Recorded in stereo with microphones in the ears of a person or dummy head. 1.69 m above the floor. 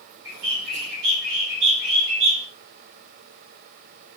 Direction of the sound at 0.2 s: 70° right (ahead or behind).